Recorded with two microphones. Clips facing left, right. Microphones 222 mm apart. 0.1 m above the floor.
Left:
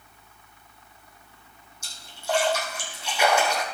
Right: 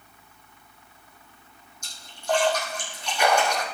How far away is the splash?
About 3.5 m.